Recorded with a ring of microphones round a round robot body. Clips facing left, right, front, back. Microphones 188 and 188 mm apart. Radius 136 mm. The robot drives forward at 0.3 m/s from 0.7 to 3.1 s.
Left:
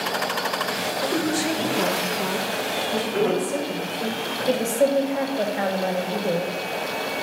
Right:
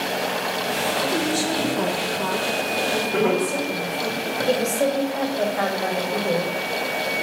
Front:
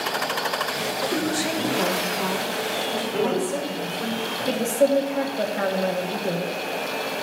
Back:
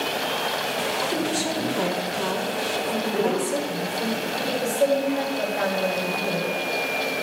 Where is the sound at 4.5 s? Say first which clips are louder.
Left 2 dB, front 2 dB; 25° left, 1.4 m.